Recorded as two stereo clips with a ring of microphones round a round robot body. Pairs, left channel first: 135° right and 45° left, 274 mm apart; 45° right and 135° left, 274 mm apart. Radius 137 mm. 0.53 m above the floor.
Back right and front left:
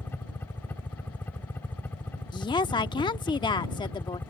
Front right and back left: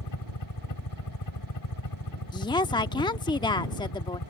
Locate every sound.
0.0 s a helicopter: 50° right
2.3 s a woman speaking: 90° right